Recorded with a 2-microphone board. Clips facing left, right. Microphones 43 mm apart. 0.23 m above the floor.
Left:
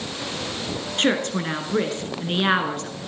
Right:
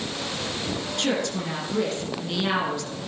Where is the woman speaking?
45° left (ahead or behind), 2.5 m.